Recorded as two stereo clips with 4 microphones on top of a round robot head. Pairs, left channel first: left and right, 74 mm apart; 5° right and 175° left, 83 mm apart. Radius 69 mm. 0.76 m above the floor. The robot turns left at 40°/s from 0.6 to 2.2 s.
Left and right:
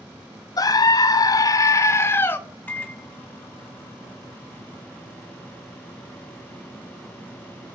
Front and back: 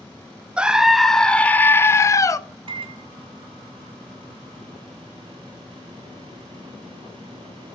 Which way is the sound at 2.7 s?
160° left.